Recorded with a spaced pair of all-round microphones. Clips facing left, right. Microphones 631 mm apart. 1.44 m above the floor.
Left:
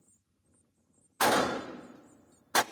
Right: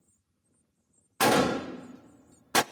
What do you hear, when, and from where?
1.2 s a gunshot: 60° right (ahead or behind), 0.5 m